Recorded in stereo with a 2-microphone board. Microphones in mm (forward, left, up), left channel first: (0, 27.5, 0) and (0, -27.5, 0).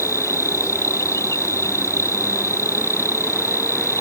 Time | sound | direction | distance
0.0 | an insect | 70° left (ahead or behind) | ?